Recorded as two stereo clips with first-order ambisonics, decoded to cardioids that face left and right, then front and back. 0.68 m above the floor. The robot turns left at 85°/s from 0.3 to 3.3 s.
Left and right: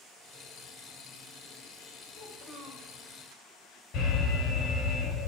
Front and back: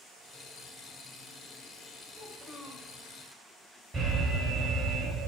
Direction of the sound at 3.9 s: 110° left.